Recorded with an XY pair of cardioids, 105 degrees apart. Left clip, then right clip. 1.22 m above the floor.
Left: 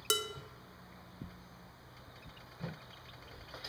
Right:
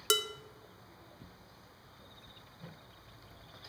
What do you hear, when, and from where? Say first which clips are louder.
0.1 s dishes clattering: right 3 dB; 20° right, 0.6 m